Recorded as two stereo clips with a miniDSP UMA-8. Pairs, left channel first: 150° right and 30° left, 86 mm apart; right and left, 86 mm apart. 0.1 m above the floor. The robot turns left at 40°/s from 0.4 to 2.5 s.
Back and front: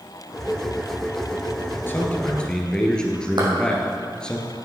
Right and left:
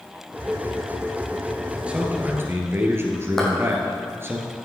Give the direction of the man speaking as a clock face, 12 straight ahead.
7 o'clock.